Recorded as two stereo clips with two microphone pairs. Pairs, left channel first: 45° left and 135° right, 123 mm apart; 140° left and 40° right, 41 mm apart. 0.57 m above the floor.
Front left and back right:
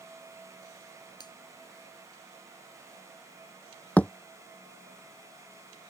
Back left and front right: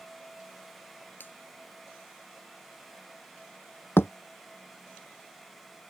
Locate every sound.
1.2 s a finger snap: 100° left
4.0 s a thud: 125° left